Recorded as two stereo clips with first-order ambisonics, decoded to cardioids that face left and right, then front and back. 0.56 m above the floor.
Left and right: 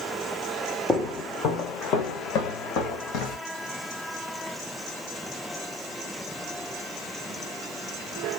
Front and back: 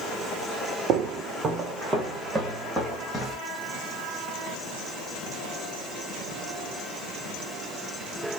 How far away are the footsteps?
About 0.8 m.